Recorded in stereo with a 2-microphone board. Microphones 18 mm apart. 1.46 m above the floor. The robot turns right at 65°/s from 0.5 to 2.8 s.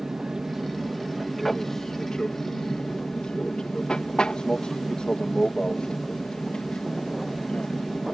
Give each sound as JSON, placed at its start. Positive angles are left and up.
{"t": 0.0, "sound": "an aircraft", "azimuth_deg": -50}